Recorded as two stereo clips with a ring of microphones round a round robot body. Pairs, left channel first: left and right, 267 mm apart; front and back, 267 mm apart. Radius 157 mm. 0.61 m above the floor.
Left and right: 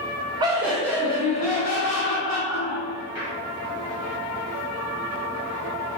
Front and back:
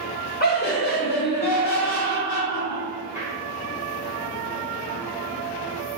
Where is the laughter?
25° right, 0.8 m; by 3.3 s 65° left, 2.0 m.